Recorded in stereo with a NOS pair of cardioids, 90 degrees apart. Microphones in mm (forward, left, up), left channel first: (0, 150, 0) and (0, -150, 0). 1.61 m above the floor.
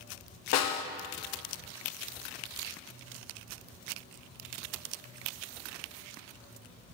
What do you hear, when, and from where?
0.5 s a snare drum: 60° left, 0.6 m